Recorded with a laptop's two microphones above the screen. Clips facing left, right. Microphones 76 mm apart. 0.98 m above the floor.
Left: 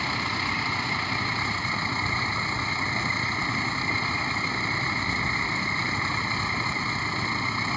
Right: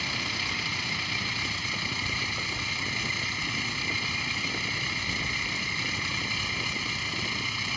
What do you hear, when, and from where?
0.0 s a vehicle: 35° left (ahead or behind)